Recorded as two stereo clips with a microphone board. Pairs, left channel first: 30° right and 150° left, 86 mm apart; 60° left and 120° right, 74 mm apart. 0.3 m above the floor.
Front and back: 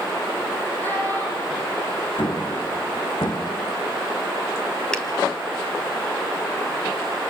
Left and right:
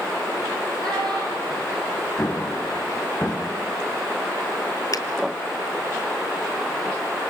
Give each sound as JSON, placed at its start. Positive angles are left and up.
{"t": 0.8, "sound": "a child speaking", "azimuth_deg": -95, "distance_m": 8.5}
{"t": 2.2, "sound": "an explosion", "azimuth_deg": -10, "distance_m": 3.5}
{"t": 4.9, "sound": "a finger snap", "azimuth_deg": 50, "distance_m": 2.0}